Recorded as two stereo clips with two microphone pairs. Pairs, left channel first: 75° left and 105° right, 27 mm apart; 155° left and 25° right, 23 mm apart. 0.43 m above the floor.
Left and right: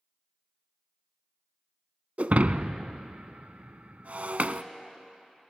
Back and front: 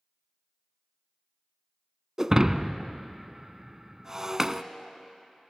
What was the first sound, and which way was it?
Breaking glass, 90° right.